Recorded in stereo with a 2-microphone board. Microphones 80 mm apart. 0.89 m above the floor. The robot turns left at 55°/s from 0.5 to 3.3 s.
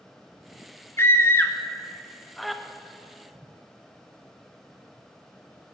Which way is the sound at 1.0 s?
30° left (ahead or behind).